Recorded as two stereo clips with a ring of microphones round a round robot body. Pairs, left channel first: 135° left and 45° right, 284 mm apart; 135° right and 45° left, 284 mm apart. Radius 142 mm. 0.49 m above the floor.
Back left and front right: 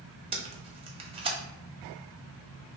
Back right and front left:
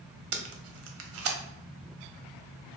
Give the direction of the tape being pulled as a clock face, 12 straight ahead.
11 o'clock.